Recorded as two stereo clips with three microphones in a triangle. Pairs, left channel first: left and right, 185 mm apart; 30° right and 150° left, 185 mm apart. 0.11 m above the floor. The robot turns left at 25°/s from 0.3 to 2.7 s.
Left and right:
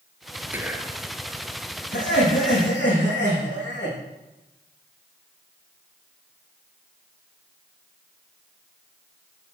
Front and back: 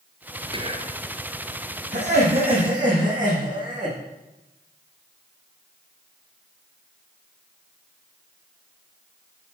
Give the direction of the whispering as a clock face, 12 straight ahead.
5 o'clock.